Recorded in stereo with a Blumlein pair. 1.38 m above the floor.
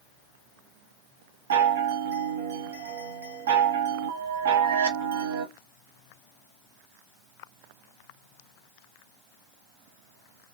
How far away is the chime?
About 0.6 m.